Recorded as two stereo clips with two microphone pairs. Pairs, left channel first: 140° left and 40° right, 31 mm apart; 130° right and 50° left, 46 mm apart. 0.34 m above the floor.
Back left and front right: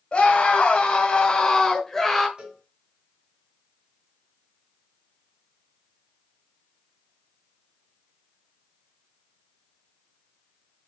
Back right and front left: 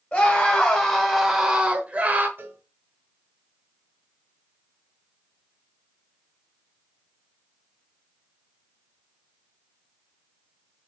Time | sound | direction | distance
0.1 | a scream | 170° left | 1.3 m
2.4 | a cowbell | 10° left | 2 m